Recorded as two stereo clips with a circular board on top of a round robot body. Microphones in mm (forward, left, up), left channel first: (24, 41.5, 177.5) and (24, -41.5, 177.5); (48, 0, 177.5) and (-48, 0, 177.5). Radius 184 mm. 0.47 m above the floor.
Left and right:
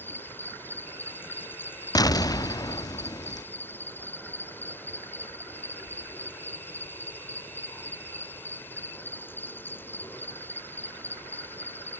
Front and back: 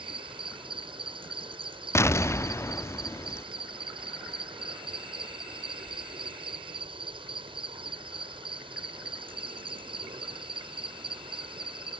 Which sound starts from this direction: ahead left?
An explosion, at 1.9 s.